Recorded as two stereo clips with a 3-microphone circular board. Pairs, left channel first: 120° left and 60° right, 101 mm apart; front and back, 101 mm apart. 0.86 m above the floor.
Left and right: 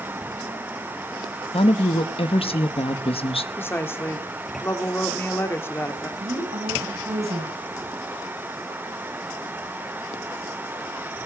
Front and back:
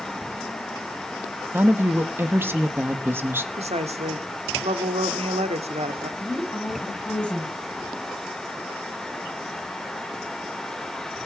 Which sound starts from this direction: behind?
A woman speaking, at 3.5 s.